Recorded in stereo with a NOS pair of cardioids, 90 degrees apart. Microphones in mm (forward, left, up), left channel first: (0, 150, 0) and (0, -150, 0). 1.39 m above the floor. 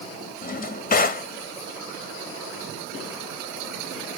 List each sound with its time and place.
0.4 s a drawer: 30° left, 1.6 m